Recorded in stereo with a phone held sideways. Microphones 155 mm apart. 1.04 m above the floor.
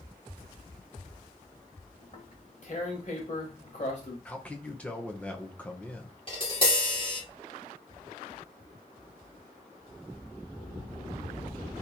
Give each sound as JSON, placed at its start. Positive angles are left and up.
{"t": 2.0, "sound": "tearing paper", "side_deg": 50, "distance_m": 1.2}
{"t": 4.2, "sound": "a man speaking", "side_deg": 10, "distance_m": 0.7}
{"t": 6.3, "sound": "tapping", "side_deg": 35, "distance_m": 1.9}